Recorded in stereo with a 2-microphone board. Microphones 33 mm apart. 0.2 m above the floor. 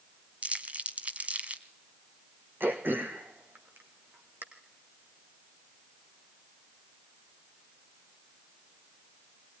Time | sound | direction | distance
0.4 | crumpling | 40° right (ahead or behind) | 1.4 m
2.6 | throat clearing | 70° right (ahead or behind) | 2.5 m